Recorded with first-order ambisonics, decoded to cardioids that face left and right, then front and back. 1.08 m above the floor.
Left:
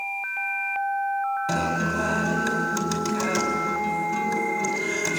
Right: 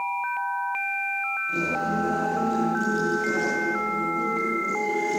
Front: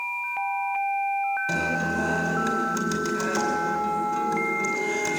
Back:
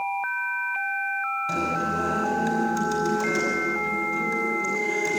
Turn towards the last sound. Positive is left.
turn(degrees=70)